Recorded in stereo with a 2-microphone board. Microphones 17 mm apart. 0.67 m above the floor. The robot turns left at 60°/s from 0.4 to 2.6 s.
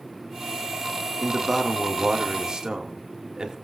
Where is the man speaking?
5° left, 1.5 m; by 3.5 s 80° right, 1.5 m.